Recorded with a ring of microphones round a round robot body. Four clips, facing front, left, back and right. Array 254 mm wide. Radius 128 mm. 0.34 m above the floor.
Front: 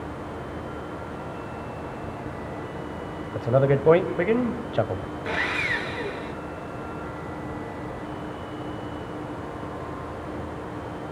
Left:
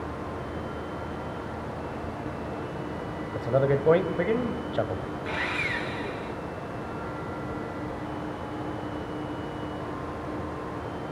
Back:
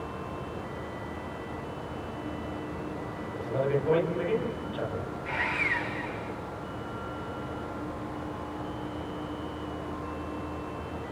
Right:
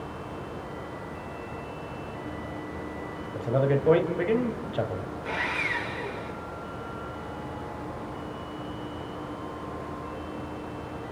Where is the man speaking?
10° left, 2 m.